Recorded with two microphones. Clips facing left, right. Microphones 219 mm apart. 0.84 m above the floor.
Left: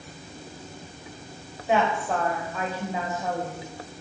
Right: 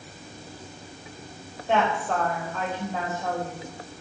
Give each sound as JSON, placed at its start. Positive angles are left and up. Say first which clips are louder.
{"t": 1.7, "sound": "a woman speaking", "louder": "left 1 dB", "side_deg": 5, "distance_m": 4.0}